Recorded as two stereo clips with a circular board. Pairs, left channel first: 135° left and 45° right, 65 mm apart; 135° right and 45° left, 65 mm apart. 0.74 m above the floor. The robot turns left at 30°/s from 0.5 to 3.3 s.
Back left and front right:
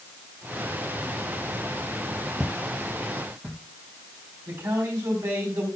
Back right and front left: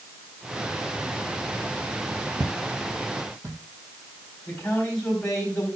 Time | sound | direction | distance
2.4 | footsteps | 35° left | 1.2 m
4.5 | a man speaking | 60° right | 3.5 m